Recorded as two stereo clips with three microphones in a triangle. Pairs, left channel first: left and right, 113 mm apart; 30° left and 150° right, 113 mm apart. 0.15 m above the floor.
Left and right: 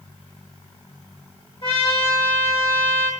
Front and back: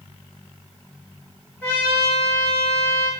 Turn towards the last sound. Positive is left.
turn(degrees=100)